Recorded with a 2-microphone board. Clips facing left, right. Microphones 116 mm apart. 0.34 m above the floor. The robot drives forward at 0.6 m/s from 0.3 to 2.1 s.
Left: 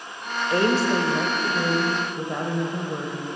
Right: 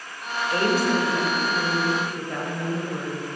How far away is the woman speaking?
About 0.9 m.